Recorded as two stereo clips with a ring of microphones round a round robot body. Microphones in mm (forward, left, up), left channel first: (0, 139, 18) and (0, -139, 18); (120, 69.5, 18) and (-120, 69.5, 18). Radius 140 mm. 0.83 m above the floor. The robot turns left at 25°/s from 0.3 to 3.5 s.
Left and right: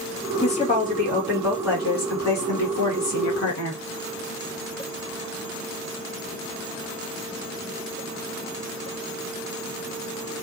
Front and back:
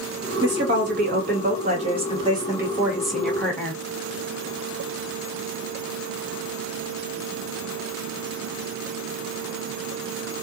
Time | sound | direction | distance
0.4 | a woman speaking | 155° left | 1.4 m